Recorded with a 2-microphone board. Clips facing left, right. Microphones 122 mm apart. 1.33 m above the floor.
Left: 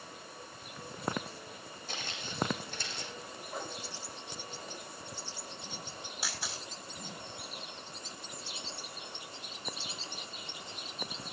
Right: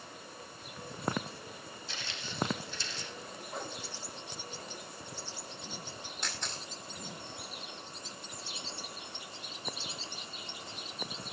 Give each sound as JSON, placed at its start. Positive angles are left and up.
{"t": 1.9, "sound": "footsteps", "side_deg": 45, "distance_m": 4.5}
{"t": 3.5, "sound": "a whoosh", "side_deg": 0, "distance_m": 1.8}
{"t": 6.2, "sound": "a camera shutter", "side_deg": 5, "distance_m": 5.5}